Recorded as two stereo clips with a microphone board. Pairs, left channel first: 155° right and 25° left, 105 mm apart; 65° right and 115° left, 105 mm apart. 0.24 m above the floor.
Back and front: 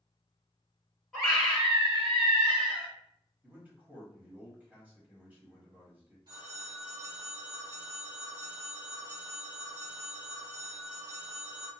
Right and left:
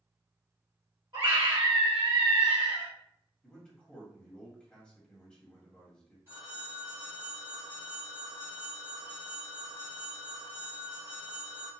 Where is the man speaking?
5° right, 1.1 m.